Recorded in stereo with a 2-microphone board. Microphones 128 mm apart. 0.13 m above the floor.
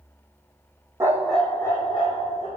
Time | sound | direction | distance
1.0 | a dog barking | 20° right (ahead or behind) | 1.5 m